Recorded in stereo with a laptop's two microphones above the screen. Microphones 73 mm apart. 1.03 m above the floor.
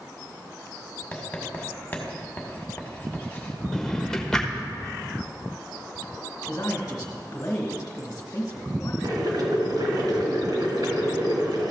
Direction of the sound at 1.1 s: 20° left (ahead or behind).